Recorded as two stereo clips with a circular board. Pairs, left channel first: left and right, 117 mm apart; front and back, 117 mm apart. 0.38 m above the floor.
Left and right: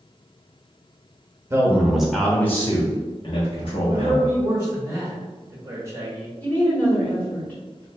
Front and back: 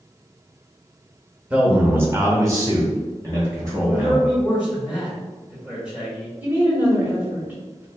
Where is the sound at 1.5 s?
110° right, 0.8 m; by 4.3 s 120° left, 1.8 m.